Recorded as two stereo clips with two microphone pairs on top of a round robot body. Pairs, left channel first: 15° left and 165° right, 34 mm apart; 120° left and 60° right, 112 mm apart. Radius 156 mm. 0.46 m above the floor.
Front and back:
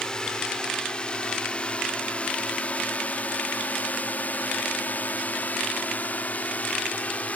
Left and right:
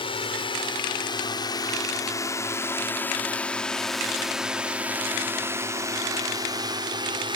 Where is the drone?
90° left; by 7.4 s 35° right.